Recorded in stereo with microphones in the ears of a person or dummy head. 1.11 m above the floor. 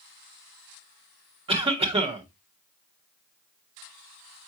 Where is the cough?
30° right (ahead or behind), 1.6 m.